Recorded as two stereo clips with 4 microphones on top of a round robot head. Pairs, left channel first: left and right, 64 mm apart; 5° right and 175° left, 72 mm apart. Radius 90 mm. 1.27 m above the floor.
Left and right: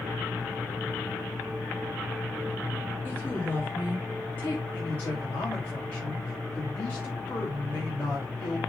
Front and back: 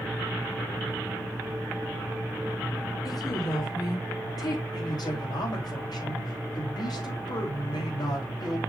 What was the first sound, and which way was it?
A woman speaking, 30° left.